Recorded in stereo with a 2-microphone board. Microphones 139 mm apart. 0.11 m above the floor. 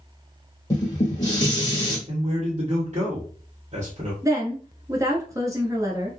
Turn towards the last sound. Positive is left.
turn(degrees=-25)  # may be behind; listen again after turning